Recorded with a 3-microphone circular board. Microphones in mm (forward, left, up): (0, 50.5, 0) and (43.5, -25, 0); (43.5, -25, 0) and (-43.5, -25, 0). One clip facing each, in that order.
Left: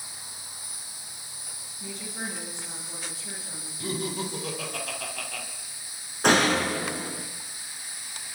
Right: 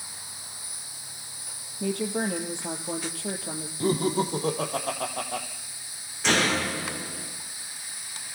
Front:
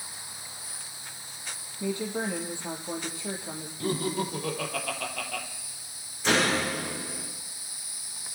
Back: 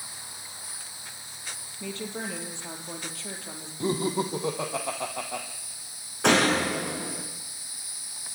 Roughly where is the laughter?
Right.